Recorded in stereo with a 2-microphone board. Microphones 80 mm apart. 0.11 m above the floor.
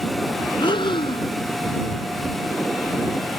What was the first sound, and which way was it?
Breathing, 75° left (ahead or behind).